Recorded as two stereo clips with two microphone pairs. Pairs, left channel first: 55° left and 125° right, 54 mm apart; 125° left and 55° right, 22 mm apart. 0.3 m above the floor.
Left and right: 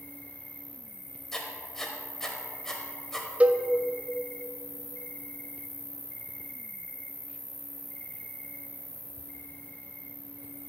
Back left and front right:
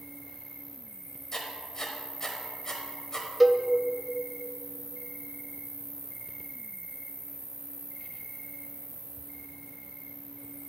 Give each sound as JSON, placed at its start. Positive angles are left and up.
{"t": 0.0, "sound": "an insect", "azimuth_deg": 15, "distance_m": 0.9}
{"t": 1.3, "sound": "writing", "azimuth_deg": 120, "distance_m": 1.1}
{"t": 3.4, "sound": "a cowbell", "azimuth_deg": -155, "distance_m": 0.5}